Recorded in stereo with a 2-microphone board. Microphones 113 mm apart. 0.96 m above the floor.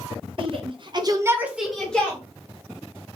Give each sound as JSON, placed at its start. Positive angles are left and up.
{"t": 0.4, "sound": "a shout", "side_deg": -50, "distance_m": 1.0}